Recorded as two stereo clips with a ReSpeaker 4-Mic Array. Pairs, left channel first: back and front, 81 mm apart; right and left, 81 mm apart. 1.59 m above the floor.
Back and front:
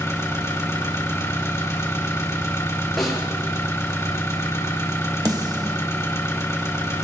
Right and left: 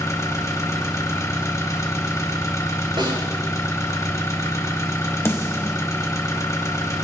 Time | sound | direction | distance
0.0 | an engine running | 130° right | 2 m
3.0 | a snare drum | 90° left | 7.5 m
5.2 | a snare drum | 35° right | 1.4 m